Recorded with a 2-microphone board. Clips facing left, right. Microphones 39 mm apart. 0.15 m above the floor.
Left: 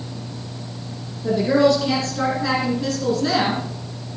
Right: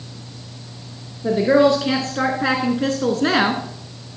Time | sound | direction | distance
1.2 | a woman speaking | 30° right (ahead or behind) | 1.8 m